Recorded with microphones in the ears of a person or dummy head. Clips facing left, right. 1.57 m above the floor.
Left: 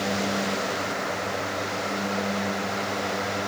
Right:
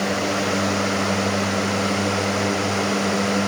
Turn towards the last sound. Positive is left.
No sound to turn to.